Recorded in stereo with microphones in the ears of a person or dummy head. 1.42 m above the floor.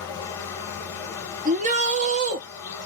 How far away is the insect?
About 0.8 m.